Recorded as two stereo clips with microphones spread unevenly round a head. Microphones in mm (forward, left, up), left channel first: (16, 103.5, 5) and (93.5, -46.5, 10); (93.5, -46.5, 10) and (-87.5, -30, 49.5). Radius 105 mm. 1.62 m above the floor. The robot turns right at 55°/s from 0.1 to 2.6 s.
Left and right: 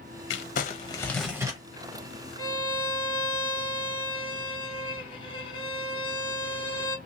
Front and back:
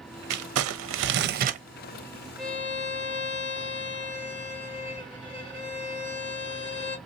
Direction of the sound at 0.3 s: 155° left.